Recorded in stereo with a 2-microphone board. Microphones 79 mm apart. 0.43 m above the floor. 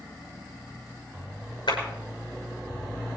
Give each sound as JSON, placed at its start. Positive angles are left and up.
{"t": 1.7, "sound": "a clap", "side_deg": 75, "distance_m": 6.5}